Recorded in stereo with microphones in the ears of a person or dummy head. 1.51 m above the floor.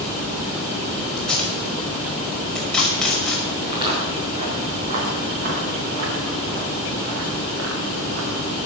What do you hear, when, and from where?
1.2 s tape being pulled: centre (ahead or behind), 5.5 m
3.6 s footsteps: 30° right (ahead or behind), 5.5 m; by 8.4 s 70° right (ahead or behind), 6 m